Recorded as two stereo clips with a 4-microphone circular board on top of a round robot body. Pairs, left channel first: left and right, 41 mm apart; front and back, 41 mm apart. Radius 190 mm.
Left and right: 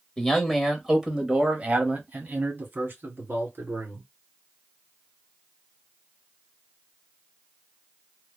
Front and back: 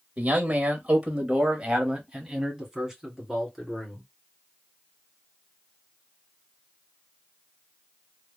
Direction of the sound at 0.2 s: 150° left.